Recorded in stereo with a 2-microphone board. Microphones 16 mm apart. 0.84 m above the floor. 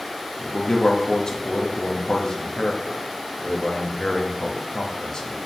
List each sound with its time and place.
0.4 s a man speaking: 55° left (ahead or behind), 0.9 m